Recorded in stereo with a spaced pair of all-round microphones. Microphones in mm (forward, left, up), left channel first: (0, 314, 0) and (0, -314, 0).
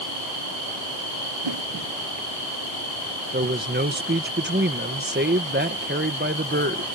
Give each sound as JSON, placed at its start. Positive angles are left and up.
{"t": 1.4, "sound": "a whoosh", "side_deg": -50}
{"t": 3.3, "sound": "a man speaking", "side_deg": -15}